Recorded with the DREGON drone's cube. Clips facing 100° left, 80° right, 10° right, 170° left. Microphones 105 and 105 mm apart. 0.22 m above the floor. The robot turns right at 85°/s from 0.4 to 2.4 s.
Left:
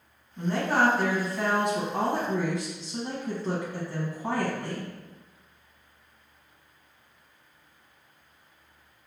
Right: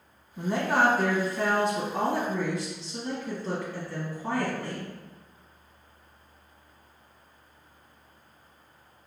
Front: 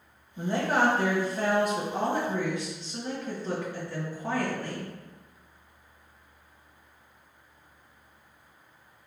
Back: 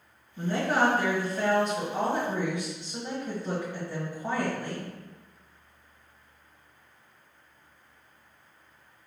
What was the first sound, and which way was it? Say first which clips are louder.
A woman speaking: even, even; 45° right.